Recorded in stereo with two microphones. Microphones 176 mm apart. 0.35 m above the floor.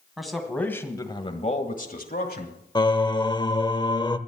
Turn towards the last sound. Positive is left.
turn(degrees=25)  # may be behind; listen again after turning